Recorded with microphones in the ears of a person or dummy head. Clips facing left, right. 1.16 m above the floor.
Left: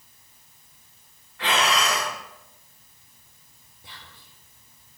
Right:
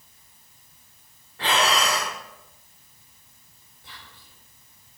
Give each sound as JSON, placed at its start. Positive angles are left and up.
{"t": 1.4, "sound": "breathing", "side_deg": -35, "distance_m": 3.0}
{"t": 3.8, "sound": "whispering", "side_deg": 10, "distance_m": 1.9}